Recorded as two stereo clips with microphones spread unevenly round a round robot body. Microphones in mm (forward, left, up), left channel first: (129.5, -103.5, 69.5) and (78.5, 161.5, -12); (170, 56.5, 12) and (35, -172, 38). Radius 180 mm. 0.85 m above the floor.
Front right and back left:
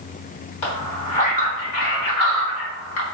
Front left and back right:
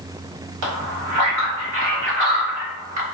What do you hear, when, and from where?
0.6 s a man speaking: 120° right, 1.6 m; by 3.0 s 60° right, 2 m